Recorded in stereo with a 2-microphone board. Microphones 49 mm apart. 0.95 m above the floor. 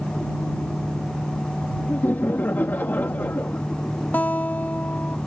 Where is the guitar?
40° left (ahead or behind).